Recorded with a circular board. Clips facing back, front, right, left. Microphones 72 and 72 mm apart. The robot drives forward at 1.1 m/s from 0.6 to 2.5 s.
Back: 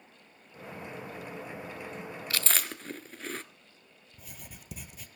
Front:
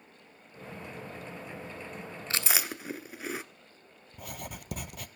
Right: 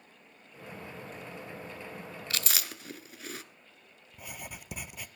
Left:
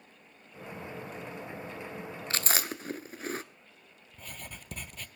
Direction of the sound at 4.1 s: 10° right.